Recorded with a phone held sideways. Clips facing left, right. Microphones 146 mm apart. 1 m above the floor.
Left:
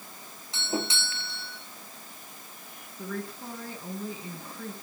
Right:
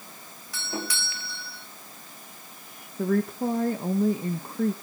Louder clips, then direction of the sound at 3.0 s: Right 12 dB; 55° right (ahead or behind).